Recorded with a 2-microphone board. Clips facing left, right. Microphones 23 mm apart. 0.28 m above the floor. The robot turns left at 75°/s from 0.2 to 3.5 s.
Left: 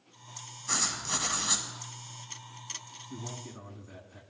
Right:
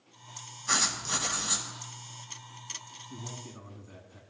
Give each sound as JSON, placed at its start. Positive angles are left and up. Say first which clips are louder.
{"t": 0.7, "sound": "writing", "louder": "right 3 dB", "azimuth_deg": -155, "distance_m": 1.6}
{"t": 3.1, "sound": "a man speaking", "louder": "left 2 dB", "side_deg": 25, "distance_m": 2.0}